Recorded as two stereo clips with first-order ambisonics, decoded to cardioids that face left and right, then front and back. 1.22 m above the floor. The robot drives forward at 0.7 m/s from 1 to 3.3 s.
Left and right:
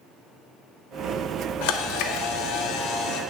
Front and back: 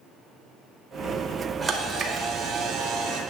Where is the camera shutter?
105° left, 1.0 m; by 3.2 s 145° left, 1.7 m.